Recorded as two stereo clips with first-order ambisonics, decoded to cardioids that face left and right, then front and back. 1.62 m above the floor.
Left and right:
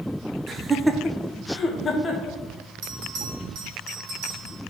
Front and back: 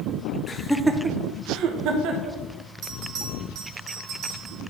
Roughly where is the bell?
Behind right.